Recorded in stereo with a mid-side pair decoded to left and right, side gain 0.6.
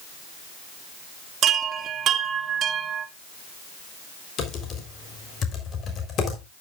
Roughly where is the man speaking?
I don't hear a man speaking.